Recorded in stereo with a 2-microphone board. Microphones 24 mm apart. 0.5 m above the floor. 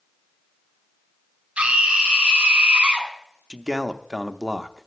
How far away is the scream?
About 3.5 m.